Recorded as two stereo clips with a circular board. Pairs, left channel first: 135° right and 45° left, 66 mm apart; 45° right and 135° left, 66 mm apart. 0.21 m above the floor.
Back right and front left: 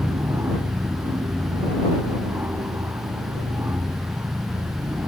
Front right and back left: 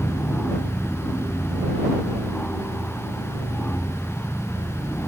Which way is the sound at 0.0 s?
15° left.